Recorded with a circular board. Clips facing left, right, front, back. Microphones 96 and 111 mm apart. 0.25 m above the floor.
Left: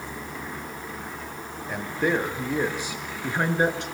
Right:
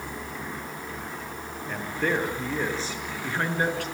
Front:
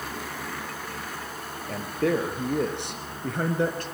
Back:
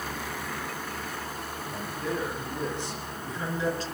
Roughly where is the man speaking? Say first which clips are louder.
Left 2 dB, front 8 dB; ahead.